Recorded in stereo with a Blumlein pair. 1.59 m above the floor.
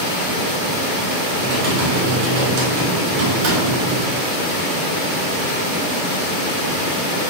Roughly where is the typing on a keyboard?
Ahead right.